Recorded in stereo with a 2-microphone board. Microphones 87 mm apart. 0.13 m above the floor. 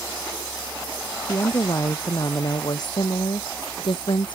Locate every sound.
1.3 s a woman speaking: 40° left (ahead or behind); by 4.3 s 60° left (ahead or behind)